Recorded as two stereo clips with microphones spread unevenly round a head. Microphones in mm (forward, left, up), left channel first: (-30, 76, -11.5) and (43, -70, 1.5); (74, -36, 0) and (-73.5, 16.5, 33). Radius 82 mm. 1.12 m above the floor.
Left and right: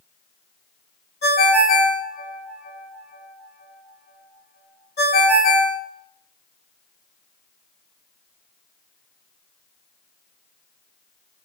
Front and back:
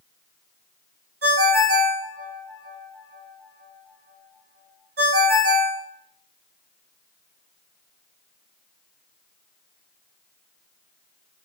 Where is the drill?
I don't hear a drill.